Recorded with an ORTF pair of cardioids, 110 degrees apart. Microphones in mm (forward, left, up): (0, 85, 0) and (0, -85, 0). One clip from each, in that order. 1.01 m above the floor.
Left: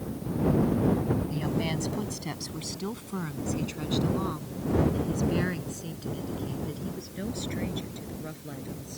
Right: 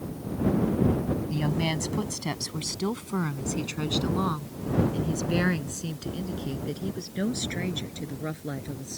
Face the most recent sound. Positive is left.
turn(degrees=-45)